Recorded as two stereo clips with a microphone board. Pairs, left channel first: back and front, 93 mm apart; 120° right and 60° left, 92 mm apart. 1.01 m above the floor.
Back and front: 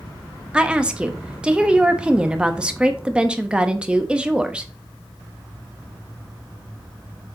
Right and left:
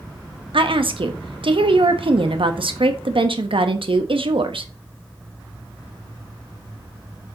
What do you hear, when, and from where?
0.5 s a woman speaking: 80° left, 0.9 m